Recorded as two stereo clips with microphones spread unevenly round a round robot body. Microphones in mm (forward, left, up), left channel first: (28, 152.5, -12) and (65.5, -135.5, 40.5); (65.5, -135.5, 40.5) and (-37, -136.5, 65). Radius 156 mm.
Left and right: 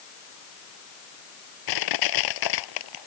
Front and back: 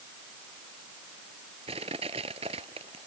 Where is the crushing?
115° left.